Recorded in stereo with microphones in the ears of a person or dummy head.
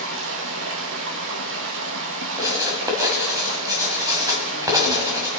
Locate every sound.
0.0 s running water: 70° right (ahead or behind), 1.0 m
2.4 s writing: 20° right (ahead or behind), 2.0 m